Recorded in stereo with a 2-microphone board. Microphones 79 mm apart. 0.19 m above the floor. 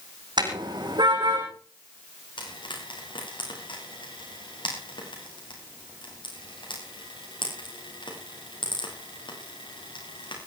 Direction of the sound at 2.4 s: 85° left.